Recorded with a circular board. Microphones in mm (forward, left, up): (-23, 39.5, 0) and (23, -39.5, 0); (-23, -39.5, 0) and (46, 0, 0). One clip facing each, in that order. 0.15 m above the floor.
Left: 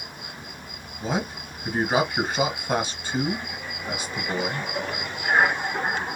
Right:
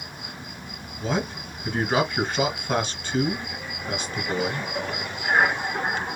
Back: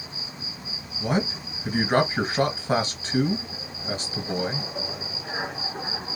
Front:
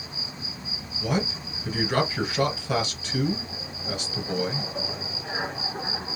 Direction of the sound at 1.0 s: 160° right.